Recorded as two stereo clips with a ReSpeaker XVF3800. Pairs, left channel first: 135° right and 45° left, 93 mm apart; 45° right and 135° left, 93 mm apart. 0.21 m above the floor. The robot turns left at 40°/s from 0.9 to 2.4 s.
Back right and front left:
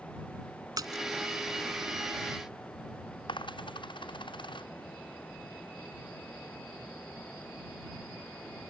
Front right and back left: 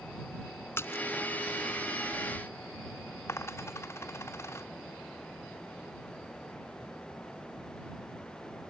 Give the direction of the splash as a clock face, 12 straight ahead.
12 o'clock.